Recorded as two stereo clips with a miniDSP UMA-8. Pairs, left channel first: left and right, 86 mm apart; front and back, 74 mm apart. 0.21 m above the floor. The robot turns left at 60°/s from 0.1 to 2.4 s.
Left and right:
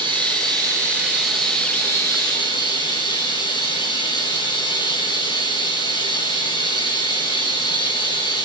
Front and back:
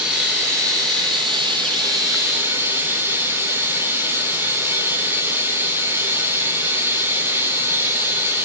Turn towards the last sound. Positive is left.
turn(degrees=120)